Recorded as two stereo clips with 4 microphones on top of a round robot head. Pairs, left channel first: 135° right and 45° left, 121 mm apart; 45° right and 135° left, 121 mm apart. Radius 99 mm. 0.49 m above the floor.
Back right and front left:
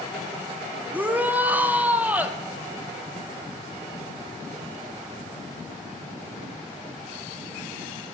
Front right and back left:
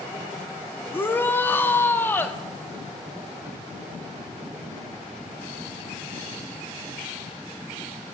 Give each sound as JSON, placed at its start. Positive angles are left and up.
{"t": 0.9, "sound": "a shout", "azimuth_deg": -5, "distance_m": 1.1}